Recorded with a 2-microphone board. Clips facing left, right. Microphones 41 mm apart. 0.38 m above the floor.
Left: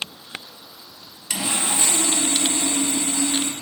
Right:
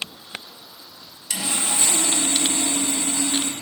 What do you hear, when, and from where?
1.3 s sawing: 25° left (ahead or behind), 0.8 m